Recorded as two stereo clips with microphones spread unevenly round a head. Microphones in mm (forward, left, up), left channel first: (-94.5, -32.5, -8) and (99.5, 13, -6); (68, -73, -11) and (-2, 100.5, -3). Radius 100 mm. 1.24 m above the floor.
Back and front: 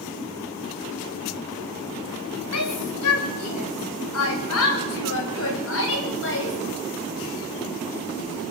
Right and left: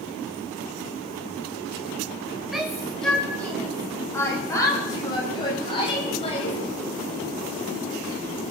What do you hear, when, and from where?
2.5 s a shout: 160° right, 6.5 m; by 6.6 s 135° right, 8.5 m